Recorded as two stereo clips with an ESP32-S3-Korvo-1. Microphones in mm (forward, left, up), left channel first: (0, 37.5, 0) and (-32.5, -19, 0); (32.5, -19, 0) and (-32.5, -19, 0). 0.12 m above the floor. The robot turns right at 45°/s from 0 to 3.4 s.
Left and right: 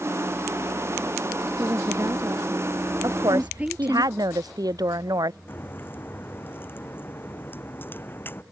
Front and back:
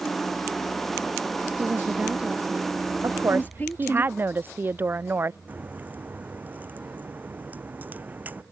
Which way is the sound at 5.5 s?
115° left.